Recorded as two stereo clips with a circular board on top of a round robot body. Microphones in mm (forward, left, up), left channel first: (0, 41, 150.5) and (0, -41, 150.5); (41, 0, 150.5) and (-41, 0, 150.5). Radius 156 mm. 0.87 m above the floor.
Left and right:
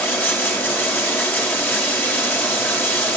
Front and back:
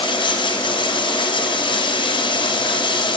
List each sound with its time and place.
0.0 s running water: 20° left, 4 m